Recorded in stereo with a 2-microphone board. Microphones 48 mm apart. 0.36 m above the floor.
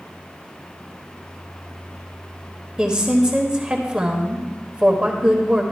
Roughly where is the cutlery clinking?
I don't hear cutlery clinking.